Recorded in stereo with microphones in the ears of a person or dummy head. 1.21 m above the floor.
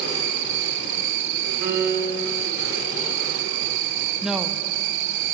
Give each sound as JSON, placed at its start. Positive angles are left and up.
{"t": 0.0, "sound": "an insect", "side_deg": -70, "distance_m": 0.7}
{"t": 1.6, "sound": "a piano", "side_deg": -40, "distance_m": 3.0}
{"t": 4.2, "sound": "a woman speaking", "side_deg": -5, "distance_m": 0.6}